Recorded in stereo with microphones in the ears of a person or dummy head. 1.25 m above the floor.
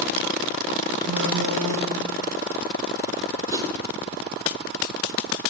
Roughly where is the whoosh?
Centre.